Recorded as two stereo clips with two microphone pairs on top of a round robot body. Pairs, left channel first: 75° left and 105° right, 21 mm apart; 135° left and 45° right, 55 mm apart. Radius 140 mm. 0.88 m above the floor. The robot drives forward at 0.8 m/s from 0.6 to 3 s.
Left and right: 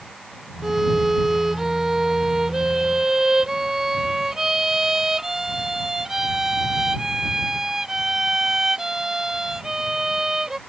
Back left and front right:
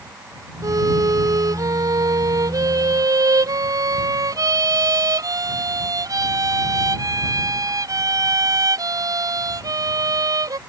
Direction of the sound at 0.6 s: 25° right.